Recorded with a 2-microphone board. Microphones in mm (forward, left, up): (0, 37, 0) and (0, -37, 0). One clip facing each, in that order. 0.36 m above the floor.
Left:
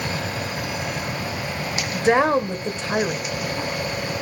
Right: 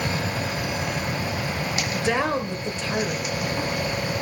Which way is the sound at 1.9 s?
35° left (ahead or behind).